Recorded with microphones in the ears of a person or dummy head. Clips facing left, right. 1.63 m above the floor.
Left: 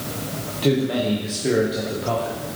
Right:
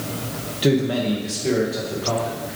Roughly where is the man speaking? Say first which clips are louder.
Right 1 dB; centre.